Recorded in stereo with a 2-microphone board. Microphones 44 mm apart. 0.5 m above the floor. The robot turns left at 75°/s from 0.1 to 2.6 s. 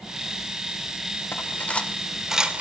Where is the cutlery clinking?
55° left (ahead or behind), 0.7 m; by 2.6 s 30° right (ahead or behind), 0.7 m.